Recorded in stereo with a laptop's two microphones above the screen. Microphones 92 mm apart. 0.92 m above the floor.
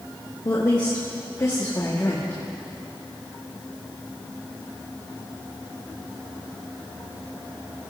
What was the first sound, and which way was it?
A woman speaking, 50° left (ahead or behind).